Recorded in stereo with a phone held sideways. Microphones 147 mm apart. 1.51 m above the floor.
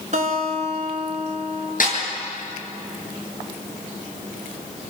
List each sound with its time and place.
0.1 s a guitar: 55° right (ahead or behind), 5 m
1.8 s a snare drum: 65° left (ahead or behind), 8.5 m